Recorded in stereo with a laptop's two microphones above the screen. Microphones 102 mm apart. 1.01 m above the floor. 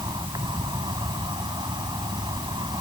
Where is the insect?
45° right (ahead or behind).